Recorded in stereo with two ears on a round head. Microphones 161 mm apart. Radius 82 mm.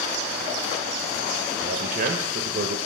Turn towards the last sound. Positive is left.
turn(degrees=-50)  # may be behind; listen again after turning